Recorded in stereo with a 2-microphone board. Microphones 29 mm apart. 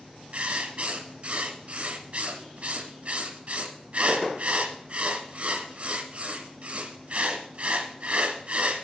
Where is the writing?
45° right (ahead or behind), 1.3 m.